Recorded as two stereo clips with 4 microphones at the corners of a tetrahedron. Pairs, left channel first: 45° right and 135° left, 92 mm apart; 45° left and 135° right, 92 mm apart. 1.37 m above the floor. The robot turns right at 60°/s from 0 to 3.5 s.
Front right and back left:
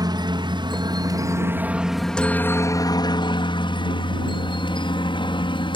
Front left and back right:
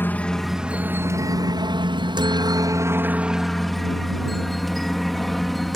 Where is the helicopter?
105° left; by 5.8 s 45° right.